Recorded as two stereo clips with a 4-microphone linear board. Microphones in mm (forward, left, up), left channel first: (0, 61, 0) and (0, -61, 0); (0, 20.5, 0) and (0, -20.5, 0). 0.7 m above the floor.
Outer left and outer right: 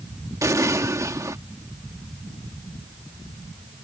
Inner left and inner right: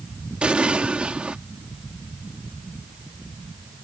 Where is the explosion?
25° right (ahead or behind).